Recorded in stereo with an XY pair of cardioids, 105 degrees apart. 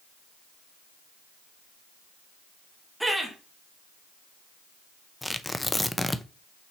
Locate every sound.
3.0 s laughter: 5° right, 3 m
5.2 s tearing paper: 10° left, 0.6 m